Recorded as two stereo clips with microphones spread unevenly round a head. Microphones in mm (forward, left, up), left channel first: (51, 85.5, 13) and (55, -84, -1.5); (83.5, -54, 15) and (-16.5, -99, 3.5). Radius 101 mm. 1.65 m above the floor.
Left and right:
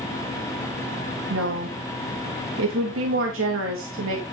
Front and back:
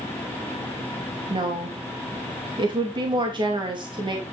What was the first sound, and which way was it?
A woman speaking, 110° right.